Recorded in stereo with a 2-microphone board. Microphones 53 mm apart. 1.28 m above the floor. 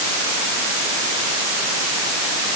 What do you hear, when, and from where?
Only background noise.